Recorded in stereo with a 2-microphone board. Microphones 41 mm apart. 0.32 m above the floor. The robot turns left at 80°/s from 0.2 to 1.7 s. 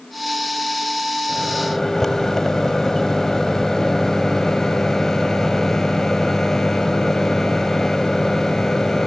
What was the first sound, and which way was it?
A microwave, 165° right.